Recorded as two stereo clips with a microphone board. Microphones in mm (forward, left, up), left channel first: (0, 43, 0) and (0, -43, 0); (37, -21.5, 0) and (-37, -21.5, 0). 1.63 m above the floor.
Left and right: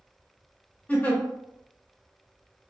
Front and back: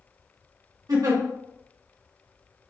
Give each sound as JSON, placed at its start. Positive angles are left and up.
{"t": 0.9, "sound": "a giggle", "azimuth_deg": 160, "distance_m": 0.6}